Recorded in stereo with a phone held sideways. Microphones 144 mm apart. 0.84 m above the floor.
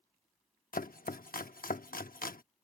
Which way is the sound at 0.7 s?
80° left.